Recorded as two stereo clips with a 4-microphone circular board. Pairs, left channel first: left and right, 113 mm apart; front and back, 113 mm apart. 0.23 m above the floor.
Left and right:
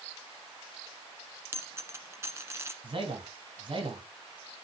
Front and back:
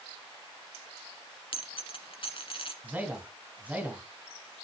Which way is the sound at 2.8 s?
110° right.